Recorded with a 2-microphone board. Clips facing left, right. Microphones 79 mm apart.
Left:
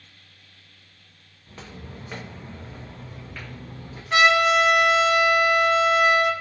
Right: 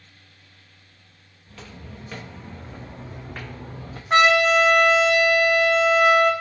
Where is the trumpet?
45° right (ahead or behind), 0.8 m.